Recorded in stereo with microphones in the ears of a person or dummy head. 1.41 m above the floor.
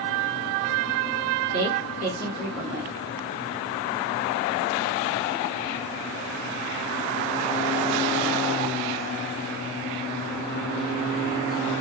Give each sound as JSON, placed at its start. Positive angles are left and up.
{"t": 1.5, "sound": "a woman speaking", "side_deg": -80, "distance_m": 1.7}